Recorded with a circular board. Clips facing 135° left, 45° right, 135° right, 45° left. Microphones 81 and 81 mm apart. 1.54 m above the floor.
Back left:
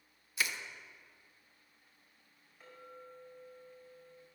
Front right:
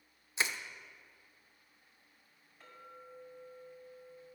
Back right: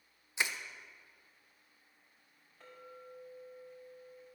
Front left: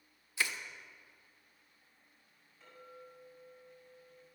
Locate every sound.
0.4 s crushing: 85° right, 0.7 m
2.6 s a clink: 145° right, 5 m